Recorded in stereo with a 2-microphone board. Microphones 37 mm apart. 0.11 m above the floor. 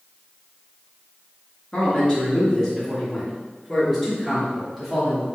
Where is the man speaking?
25° left (ahead or behind), 1.8 m; by 5.2 s 5° right (ahead or behind), 2.5 m.